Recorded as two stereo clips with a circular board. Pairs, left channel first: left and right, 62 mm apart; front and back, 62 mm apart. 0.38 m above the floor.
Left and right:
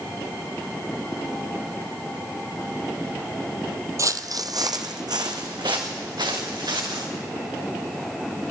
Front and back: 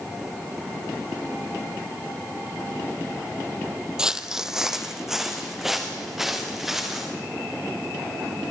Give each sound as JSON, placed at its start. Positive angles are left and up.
{"t": 4.0, "sound": "footsteps", "azimuth_deg": -105, "distance_m": 0.5}